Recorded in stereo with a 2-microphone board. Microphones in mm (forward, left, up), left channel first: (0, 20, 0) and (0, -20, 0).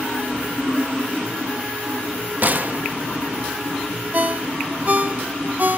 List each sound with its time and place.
2.4 s a gunshot: 45° right (ahead or behind), 0.6 m
4.1 s a ringtone: 40° right (ahead or behind), 0.7 m